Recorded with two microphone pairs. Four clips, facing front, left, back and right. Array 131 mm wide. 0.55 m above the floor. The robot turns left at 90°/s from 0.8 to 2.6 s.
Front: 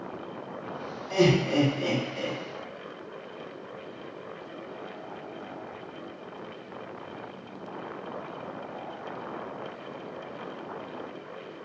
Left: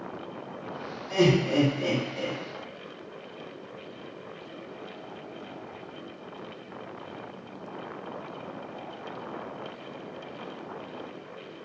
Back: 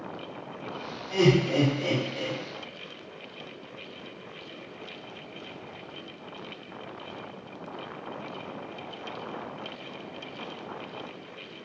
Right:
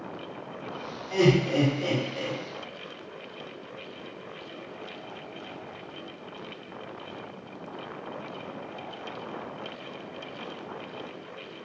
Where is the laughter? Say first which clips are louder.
Even, even; 50° left, 1.2 m; by 2.4 s 65° right, 1.2 m.